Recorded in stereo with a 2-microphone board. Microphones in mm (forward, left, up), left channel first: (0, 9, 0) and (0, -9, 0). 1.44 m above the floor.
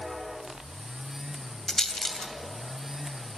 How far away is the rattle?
About 2.5 m.